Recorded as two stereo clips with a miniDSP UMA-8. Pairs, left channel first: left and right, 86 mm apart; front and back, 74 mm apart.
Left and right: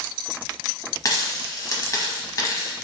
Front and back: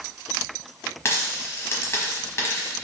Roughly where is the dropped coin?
Ahead left.